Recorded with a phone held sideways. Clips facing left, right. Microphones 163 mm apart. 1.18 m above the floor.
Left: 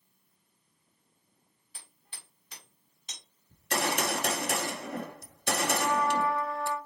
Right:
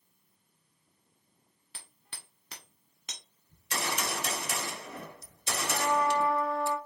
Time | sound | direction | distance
1.7 | hammering | 75° right (ahead or behind) | 1.4 m
3.5 | a gunshot | 60° left (ahead or behind) | 0.7 m
5.7 | a trumpet | 25° right (ahead or behind) | 2 m